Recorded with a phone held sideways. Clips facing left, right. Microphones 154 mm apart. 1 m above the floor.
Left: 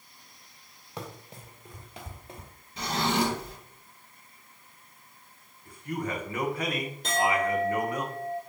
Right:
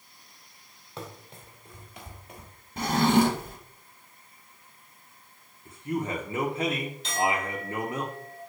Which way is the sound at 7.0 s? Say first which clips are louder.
Left 3 dB; 60° left (ahead or behind).